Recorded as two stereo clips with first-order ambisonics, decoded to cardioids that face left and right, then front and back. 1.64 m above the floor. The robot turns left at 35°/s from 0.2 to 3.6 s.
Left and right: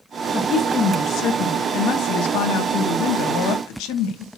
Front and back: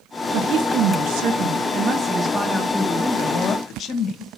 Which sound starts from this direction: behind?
A woman speaking, at 0.3 s.